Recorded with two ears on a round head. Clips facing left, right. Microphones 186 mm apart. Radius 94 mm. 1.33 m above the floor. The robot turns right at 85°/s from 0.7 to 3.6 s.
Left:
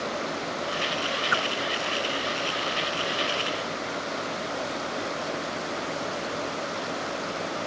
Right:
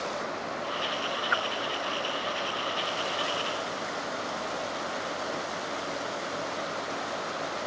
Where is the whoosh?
40° left (ahead or behind); by 1.4 s 45° left (ahead or behind).